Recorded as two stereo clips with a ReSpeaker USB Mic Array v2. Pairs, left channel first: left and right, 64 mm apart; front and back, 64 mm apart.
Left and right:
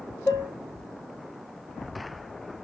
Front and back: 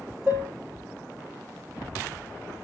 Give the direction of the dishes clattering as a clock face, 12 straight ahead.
8 o'clock.